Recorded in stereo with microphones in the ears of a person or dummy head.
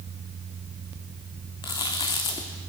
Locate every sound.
1.6 s chewing: 25° left (ahead or behind), 1.2 m